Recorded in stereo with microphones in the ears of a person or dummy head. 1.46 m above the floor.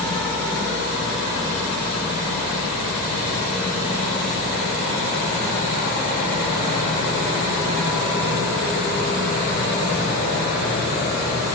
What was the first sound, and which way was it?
Only background noise.